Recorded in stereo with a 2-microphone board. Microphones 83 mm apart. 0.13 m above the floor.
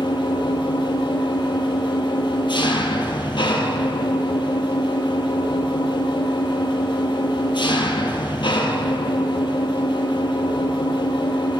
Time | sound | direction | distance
0.0 | an engine running | 75° left (ahead or behind) | 1.0 m